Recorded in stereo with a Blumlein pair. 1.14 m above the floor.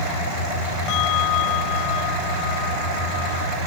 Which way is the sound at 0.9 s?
40° left.